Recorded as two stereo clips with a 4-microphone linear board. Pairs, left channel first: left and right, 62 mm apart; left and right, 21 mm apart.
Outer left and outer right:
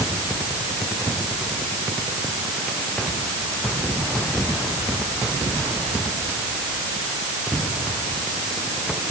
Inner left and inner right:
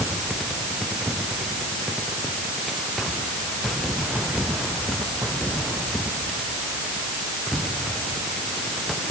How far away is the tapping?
I don't hear tapping.